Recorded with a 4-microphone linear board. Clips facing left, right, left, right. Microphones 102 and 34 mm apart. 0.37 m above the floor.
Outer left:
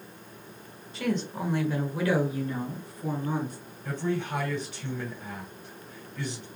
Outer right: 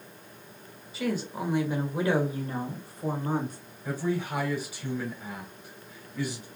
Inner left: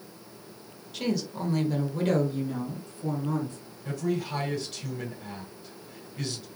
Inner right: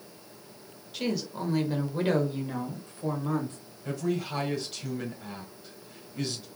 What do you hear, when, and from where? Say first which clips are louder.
0.9 s a woman speaking: outer left 1 dB, inner left 1 dB; centre (ahead or behind), 1.3 m; by 3.6 s 50° right (ahead or behind), 1.6 m
3.9 s a man speaking: even, inner left 1 dB; 10° right (ahead or behind), 2 m